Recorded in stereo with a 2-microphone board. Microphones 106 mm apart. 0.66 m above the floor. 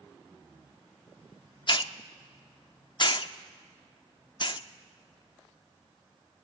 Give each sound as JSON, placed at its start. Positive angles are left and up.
{"t": 1.7, "sound": "a hiss", "side_deg": 50, "distance_m": 0.5}